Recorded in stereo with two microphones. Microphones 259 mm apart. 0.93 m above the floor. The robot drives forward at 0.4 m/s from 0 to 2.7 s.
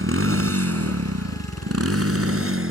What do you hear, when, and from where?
0.0 s a motorcycle: 60° right (ahead or behind)